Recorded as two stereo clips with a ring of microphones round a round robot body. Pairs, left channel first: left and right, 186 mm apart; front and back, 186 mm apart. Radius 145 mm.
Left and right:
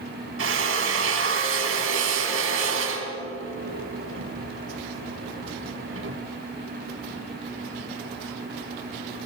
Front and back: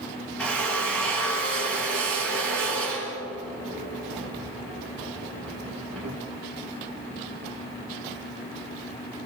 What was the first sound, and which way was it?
A drill, 85° right.